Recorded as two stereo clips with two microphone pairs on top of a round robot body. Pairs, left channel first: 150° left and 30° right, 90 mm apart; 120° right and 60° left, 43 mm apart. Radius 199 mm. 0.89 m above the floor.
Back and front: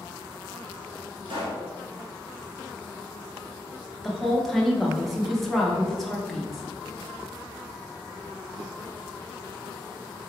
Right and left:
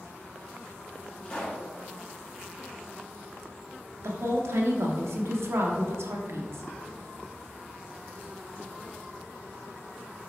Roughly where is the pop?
Ahead right.